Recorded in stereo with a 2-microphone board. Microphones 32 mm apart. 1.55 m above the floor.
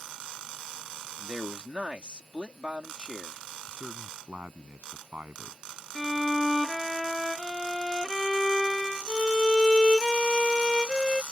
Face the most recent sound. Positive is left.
turn(degrees=-5)  # may be behind; listen again after turning